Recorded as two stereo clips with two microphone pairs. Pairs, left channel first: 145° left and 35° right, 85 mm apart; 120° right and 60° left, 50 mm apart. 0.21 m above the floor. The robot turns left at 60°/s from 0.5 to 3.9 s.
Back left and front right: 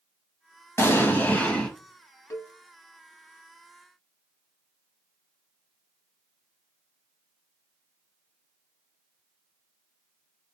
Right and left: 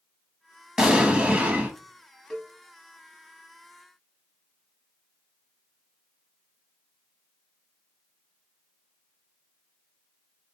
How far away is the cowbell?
About 0.8 m.